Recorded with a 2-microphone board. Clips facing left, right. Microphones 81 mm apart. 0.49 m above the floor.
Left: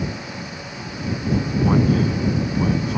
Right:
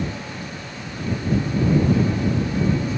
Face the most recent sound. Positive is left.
turn(degrees=70)  # may be behind; listen again after turning